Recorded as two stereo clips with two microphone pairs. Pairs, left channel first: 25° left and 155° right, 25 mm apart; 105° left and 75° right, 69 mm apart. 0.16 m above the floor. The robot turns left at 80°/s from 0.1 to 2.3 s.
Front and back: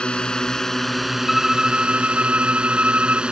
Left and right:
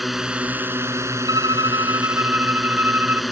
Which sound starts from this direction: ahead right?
A violin, at 1.3 s.